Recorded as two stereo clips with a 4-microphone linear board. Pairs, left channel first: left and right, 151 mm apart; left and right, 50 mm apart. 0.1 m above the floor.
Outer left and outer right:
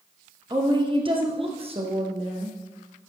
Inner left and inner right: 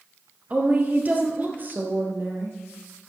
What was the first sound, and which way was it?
A woman speaking, 30° right (ahead or behind).